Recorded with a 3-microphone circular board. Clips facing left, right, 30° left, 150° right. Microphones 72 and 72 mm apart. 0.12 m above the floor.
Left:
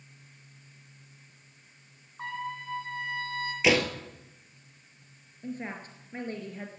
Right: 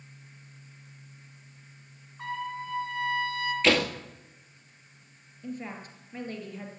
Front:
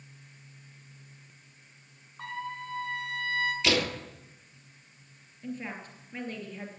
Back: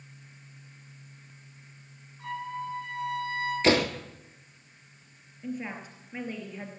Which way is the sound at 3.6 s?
170° left.